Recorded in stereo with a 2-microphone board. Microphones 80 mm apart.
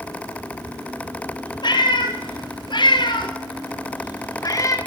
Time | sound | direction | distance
1.6 | a cat meowing | 70° left (ahead or behind) | 1.8 m